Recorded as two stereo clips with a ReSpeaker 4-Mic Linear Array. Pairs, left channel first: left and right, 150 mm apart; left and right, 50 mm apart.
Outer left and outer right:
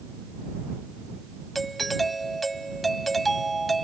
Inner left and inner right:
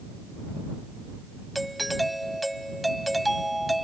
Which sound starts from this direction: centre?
A doorbell, at 1.6 s.